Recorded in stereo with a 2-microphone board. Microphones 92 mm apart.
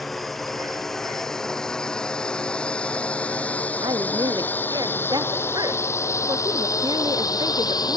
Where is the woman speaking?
50° right (ahead or behind).